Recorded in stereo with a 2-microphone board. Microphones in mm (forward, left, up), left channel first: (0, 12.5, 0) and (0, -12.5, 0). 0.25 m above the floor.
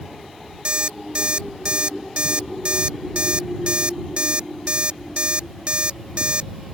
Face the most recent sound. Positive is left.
turn(degrees=-40)  # may be behind; listen again after turning